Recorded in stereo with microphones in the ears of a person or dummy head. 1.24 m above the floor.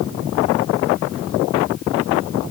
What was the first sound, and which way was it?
Only background noise.